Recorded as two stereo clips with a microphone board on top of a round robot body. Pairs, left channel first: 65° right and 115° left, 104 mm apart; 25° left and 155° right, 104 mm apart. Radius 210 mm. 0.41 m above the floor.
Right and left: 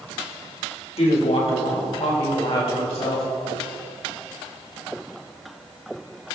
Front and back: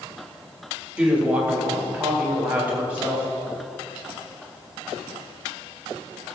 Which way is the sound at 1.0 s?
80° right.